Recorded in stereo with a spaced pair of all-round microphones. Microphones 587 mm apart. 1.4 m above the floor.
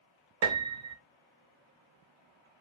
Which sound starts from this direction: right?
A piano, at 0.4 s.